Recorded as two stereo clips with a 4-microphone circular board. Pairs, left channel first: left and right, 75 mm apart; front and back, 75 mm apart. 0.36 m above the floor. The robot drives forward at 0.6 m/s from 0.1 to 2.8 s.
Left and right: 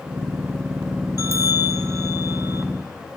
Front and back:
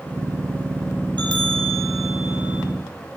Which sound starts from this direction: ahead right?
A bell, at 1.2 s.